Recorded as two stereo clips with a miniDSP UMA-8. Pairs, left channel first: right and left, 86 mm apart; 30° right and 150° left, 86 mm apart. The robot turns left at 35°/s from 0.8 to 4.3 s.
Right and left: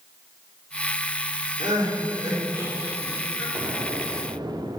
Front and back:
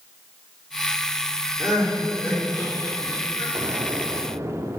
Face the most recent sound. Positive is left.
turn(degrees=100)